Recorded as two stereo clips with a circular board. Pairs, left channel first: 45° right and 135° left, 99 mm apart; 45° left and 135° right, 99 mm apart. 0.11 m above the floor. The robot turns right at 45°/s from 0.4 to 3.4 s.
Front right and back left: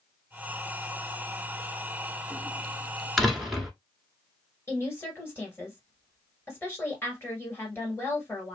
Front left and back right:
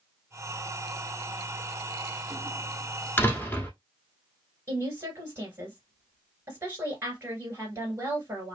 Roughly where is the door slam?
Ahead left.